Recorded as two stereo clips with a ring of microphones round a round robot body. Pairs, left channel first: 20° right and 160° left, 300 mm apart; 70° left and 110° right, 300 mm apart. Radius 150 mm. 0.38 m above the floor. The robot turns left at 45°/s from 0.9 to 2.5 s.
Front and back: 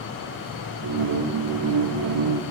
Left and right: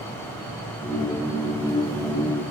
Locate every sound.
Only background noise.